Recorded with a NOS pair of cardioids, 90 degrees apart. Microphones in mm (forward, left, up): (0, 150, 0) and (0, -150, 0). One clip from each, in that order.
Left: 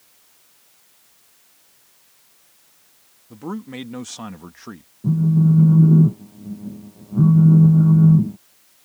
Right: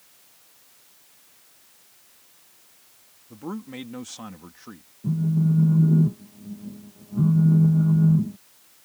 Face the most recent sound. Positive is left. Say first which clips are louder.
# left 6 dB
turn(degrees=40)